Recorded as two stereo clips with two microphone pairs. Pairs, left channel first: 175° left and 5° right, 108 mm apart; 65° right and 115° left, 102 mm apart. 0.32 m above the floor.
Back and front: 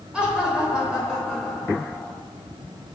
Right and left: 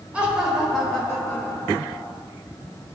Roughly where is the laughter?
Ahead left.